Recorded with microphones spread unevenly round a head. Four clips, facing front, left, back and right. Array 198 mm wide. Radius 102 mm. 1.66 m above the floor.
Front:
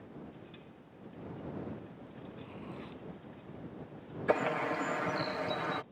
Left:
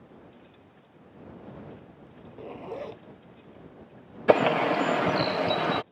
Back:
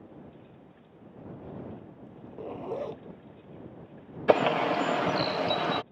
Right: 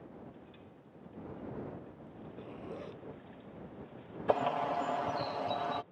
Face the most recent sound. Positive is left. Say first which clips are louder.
# left 10 dB, back 8 dB
turn(degrees=100)